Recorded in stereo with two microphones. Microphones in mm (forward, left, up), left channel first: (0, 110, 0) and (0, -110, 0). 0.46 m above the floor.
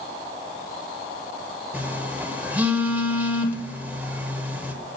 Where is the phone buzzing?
10° right (ahead or behind), 1.2 m.